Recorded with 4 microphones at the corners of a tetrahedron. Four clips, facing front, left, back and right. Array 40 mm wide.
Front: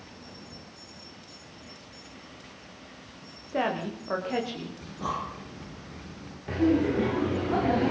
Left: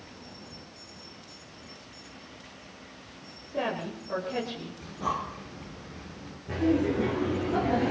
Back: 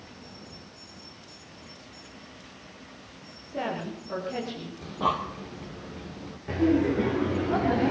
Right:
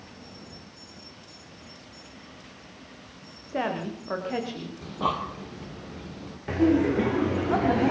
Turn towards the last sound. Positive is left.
turn(degrees=-85)